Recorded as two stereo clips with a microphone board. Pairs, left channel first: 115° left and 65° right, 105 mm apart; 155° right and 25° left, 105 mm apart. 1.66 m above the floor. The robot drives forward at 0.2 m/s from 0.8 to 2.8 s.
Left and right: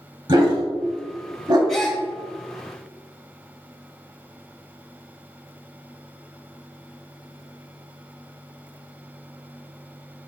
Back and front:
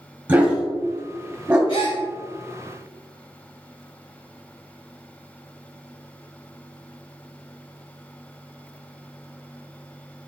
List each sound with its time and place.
0.3 s a dog barking: 45° right, 1.7 m; by 1.6 s 50° right, 1.6 m
1.7 s a gasp: 160° right, 2 m